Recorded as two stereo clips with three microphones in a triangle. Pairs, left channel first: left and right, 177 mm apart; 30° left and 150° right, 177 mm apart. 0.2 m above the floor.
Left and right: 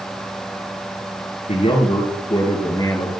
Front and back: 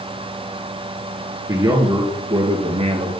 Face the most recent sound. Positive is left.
turn(degrees=160)